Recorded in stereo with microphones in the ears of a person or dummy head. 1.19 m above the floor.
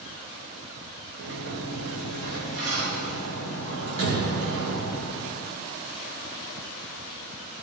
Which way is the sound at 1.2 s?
70° right (ahead or behind).